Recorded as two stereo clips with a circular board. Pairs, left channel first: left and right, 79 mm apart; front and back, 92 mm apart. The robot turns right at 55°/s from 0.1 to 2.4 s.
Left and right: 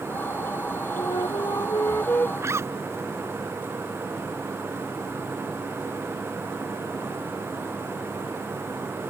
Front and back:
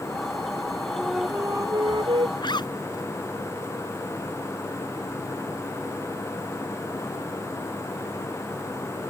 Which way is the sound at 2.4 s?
40° right.